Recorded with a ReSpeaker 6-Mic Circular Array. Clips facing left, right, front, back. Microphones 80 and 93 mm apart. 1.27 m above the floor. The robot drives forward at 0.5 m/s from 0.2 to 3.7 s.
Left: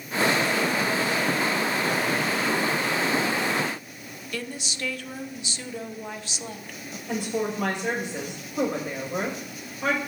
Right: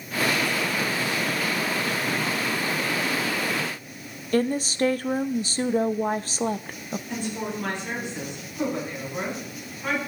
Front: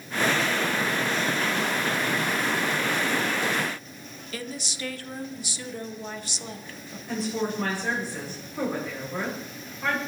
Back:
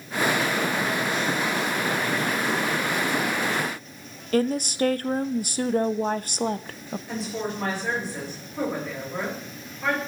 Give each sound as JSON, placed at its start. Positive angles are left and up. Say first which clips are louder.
{"t": 4.3, "sound": "a woman speaking", "louder": "right 12 dB, back 14 dB", "azimuth_deg": -140, "distance_m": 0.5}
{"t": 7.1, "sound": "a woman speaking", "louder": "left 5 dB, front 3 dB", "azimuth_deg": 90, "distance_m": 7.5}